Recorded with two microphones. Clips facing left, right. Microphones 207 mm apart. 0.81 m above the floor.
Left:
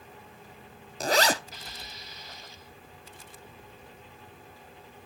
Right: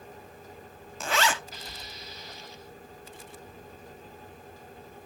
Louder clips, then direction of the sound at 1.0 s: Left 3 dB; 40° left (ahead or behind).